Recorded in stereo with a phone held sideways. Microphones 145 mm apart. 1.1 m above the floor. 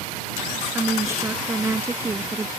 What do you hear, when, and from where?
0.8 s a woman speaking: 20° right (ahead or behind)